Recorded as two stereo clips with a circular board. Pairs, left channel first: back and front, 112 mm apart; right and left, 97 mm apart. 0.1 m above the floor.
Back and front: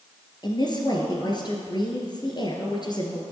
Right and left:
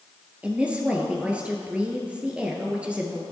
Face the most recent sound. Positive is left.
turn(degrees=160)